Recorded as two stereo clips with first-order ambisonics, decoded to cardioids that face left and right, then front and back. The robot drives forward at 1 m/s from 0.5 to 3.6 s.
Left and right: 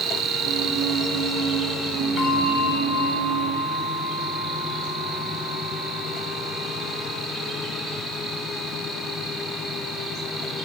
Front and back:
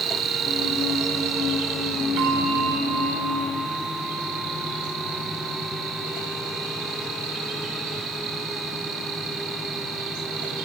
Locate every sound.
0.0 s an insect: 135° right, 0.8 m; by 10.7 s 170° right, 3.5 m
2.2 s a bell: 145° left, 3 m; by 7.2 s 155° left, 4 m